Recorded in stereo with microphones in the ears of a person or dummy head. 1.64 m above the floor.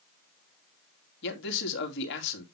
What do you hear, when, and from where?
1.2 s a man speaking: 65° left (ahead or behind), 2.5 m